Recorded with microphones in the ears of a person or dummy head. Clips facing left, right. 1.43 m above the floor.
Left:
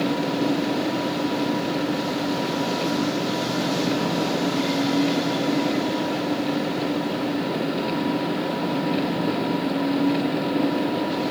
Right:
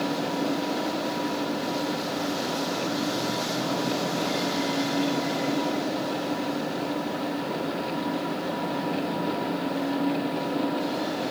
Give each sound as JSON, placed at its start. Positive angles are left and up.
{"t": 0.0, "sound": "an engine running", "side_deg": 30}